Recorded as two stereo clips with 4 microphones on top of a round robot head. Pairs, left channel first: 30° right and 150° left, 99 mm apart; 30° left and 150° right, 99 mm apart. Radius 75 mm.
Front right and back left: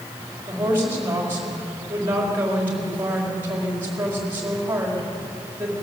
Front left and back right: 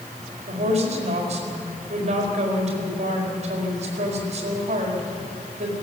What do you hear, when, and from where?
0.5 s a woman speaking: 140° right, 4.5 m